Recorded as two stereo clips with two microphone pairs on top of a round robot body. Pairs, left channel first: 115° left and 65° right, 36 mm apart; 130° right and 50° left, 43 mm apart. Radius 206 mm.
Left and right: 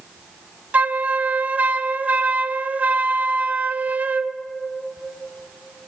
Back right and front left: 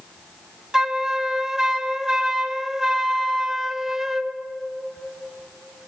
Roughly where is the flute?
Ahead right.